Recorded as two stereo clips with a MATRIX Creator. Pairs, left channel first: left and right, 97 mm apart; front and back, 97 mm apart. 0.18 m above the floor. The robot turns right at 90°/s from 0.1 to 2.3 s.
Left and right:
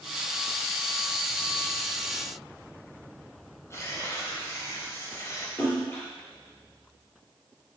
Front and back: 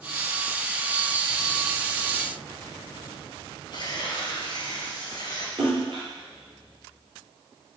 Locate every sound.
3.7 s tearing paper: 35° left, 3 m
5.6 s a splash: 145° left, 3.5 m